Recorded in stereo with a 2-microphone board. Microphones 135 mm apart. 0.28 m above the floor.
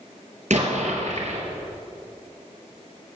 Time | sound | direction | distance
0.5 | an explosion | 70° right (ahead or behind) | 3.5 m